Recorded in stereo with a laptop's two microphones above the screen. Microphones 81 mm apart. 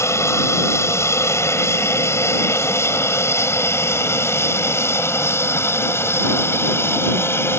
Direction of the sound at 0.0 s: 35° left (ahead or behind).